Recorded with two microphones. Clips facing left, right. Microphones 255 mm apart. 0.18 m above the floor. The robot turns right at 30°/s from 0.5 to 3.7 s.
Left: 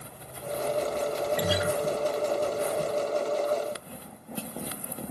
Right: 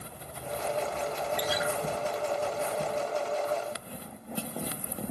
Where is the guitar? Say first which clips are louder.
Left 3 dB; 65° left (ahead or behind); by 1.7 s 60° left (ahead or behind).